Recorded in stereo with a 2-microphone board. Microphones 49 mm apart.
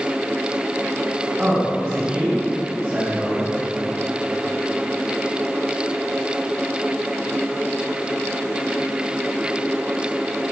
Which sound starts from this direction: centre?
A man speaking, at 1.4 s.